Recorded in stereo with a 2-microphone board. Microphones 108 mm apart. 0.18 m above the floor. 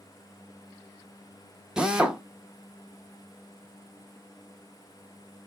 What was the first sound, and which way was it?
A drill, 5° right (ahead or behind).